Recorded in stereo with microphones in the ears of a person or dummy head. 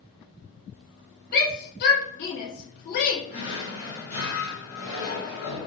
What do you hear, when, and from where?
1.3 s a shout: 45° left (ahead or behind), 1.1 m
3.3 s a drawer: 60° left (ahead or behind), 2 m